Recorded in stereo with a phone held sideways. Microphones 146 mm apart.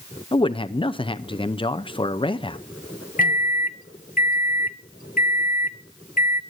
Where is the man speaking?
35° left (ahead or behind), 0.6 m.